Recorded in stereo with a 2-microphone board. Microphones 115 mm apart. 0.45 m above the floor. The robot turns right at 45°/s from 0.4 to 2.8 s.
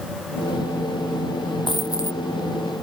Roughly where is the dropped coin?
Left.